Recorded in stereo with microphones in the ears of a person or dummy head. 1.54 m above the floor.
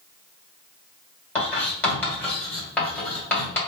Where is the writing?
15° left (ahead or behind), 1.9 m.